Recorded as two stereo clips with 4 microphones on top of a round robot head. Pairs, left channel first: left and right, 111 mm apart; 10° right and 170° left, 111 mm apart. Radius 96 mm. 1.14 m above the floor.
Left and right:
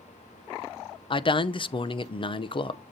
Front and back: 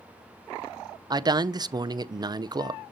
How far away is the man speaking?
About 0.6 m.